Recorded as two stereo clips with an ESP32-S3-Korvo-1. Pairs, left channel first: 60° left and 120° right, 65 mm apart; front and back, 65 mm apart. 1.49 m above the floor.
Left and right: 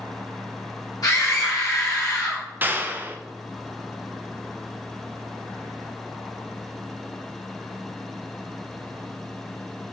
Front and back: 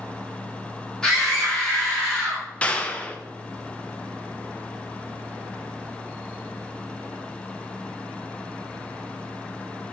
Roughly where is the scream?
Left.